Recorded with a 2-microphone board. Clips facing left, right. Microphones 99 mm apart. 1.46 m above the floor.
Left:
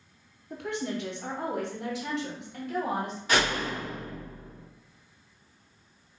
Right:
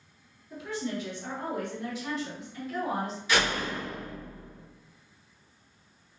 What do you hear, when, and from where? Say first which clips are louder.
0.5 s a woman speaking: left 1 dB; 60° left (ahead or behind), 1.0 m; by 3.2 s 70° left (ahead or behind), 1.8 m
3.3 s a door slam: left 1 dB; 45° left (ahead or behind), 1.8 m